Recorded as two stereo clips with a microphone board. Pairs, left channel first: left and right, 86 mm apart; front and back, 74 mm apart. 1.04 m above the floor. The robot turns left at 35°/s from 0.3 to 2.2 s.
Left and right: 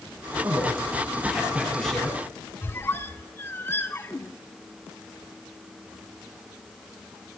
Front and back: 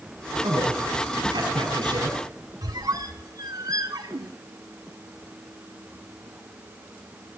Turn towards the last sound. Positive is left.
turn(degrees=150)